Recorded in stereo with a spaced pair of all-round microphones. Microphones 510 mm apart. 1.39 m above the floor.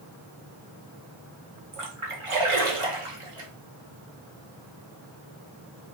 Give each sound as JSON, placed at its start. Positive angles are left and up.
{"t": 1.7, "sound": "a splash", "side_deg": -75, "distance_m": 1.2}